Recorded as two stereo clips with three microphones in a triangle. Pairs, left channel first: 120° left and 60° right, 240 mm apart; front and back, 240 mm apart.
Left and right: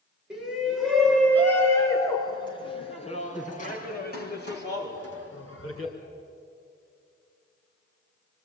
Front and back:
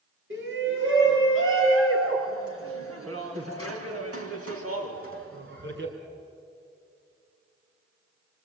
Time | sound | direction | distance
0.3 | a shout | 150° right | 6 m